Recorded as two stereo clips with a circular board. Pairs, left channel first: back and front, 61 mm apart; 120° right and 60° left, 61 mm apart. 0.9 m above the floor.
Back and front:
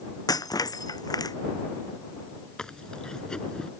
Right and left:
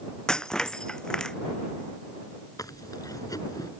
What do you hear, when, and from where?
0.3 s breaking glass: 160° left
2.6 s chewing: 100° right